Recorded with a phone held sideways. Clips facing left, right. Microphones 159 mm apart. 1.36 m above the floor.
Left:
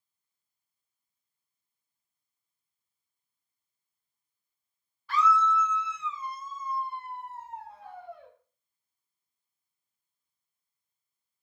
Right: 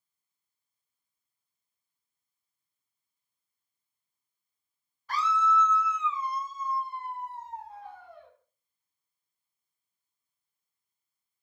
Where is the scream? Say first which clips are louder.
Left 2 dB; 40° right (ahead or behind), 0.6 m; by 8.3 s 65° left (ahead or behind), 2.5 m.